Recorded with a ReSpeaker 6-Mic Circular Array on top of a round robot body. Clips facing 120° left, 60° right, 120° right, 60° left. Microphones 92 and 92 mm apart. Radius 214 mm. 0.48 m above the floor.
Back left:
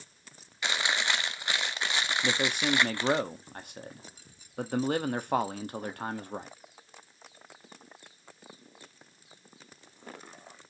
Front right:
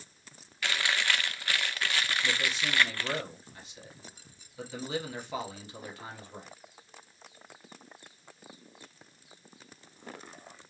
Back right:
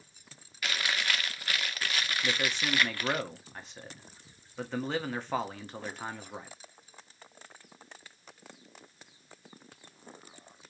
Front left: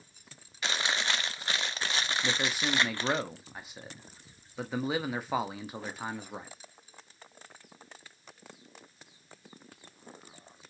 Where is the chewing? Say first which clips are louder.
Back left 1 dB, front left 1 dB; 75° left, 0.9 m.